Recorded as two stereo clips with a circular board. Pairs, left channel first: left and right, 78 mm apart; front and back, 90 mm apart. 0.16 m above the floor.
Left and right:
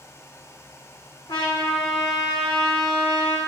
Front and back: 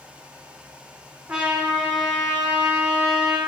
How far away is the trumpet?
About 2.5 m.